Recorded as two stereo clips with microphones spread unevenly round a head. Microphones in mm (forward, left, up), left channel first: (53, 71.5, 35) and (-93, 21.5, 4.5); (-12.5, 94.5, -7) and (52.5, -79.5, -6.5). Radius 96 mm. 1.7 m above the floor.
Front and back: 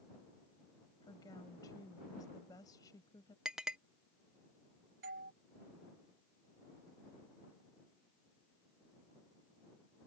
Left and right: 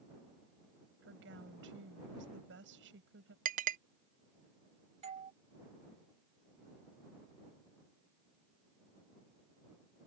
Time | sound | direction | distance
1.0 | a woman speaking | 50° right | ?
3.5 | a clink | 60° right | ?
5.0 | a doorbell | 130° right | ?